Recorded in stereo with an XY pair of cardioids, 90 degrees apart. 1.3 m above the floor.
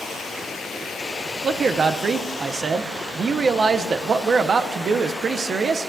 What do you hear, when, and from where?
1.4 s a man speaking: 55° right, 0.6 m